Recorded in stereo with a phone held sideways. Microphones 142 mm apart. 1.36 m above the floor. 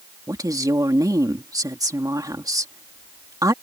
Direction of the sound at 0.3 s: 25° right (ahead or behind).